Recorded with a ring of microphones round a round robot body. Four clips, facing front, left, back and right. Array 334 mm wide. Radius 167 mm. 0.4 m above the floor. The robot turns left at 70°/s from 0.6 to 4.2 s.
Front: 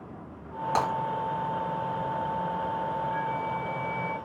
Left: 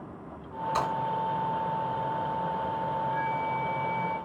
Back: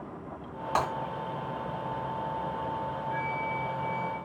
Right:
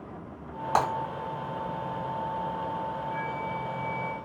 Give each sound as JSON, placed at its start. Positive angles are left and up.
{"t": 0.8, "sound": "breaking glass", "azimuth_deg": -75, "distance_m": 2.0}
{"t": 3.1, "sound": "a flute", "azimuth_deg": 130, "distance_m": 1.6}